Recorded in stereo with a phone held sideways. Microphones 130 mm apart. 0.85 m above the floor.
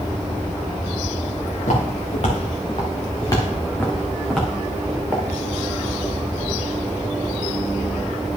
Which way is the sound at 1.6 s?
65° left (ahead or behind).